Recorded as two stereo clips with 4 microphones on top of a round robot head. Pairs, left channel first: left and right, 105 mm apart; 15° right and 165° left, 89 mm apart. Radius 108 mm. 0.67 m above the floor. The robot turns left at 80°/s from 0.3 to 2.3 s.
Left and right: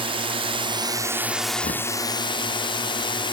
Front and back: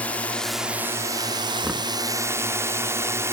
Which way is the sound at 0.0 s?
85° right.